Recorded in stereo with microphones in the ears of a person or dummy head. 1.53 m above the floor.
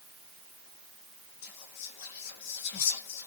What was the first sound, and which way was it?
Whispering, 55° left (ahead or behind).